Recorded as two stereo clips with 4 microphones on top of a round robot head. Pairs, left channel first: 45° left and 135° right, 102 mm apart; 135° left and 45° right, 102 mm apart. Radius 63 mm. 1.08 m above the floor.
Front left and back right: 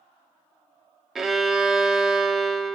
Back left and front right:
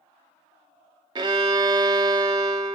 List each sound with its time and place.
1.1 s a violin: 50° right, 0.6 m